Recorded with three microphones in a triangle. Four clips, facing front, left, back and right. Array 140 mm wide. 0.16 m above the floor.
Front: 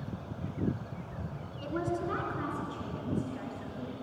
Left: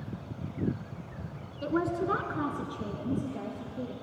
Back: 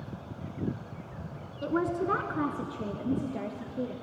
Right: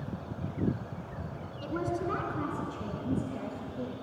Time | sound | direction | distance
1.6 | a woman speaking | 145° left | 1.3 m